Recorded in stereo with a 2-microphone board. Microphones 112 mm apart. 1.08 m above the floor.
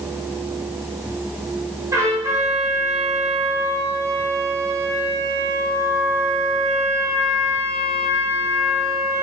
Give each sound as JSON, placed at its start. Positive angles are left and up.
{"t": 1.9, "sound": "a trumpet", "side_deg": -30, "distance_m": 2.5}